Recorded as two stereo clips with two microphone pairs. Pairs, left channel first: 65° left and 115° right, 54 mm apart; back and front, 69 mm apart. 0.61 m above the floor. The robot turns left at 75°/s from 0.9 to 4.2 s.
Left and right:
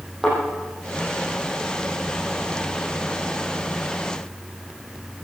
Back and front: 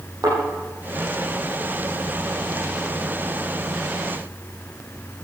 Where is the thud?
30° right, 8 m.